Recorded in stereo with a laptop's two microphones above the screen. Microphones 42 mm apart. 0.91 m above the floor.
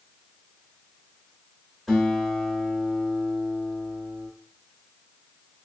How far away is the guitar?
About 1.1 m.